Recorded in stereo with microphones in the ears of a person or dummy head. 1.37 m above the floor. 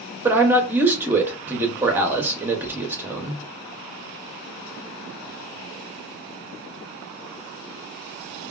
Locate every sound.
0.2 s a man speaking: 10° right (ahead or behind), 0.8 m